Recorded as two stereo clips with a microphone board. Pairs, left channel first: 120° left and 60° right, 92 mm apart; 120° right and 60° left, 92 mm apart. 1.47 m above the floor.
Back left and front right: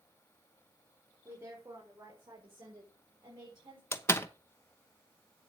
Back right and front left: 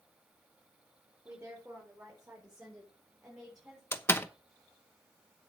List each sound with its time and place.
1.2 s a woman speaking: 10° right, 4 m; by 3.8 s 30° right, 5 m
3.9 s a door slam: straight behind, 0.9 m